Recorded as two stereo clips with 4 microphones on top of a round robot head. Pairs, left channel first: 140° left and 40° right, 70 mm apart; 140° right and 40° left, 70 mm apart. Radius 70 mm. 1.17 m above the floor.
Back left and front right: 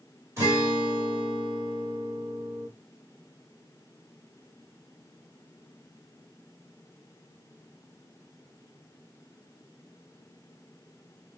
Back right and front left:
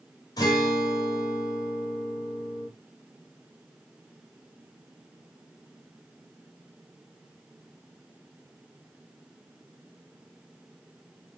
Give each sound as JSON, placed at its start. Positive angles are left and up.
{"t": 0.4, "sound": "a guitar", "azimuth_deg": -95, "distance_m": 1.4}